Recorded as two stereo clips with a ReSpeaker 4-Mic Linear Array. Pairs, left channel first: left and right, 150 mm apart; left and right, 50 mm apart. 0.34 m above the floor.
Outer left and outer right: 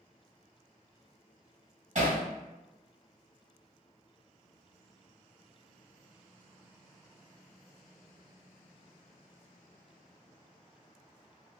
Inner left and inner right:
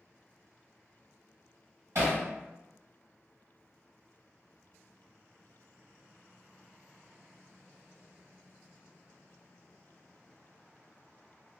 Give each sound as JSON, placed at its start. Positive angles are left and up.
{"t": 1.9, "sound": "hammering", "side_deg": -55, "distance_m": 1.6}